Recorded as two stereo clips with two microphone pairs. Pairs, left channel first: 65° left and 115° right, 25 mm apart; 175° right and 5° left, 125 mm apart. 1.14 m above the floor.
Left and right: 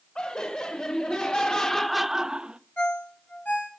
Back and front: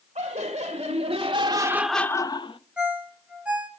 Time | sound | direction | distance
0.1 | laughter | 35° left | 1.9 m
2.8 | a ringtone | 80° left | 3.5 m